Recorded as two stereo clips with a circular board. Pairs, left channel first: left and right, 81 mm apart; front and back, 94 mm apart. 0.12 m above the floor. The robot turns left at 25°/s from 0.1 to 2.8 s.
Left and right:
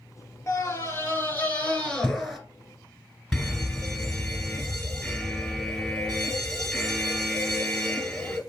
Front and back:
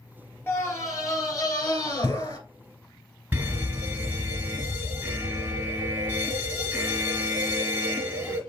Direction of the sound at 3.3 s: 170° left.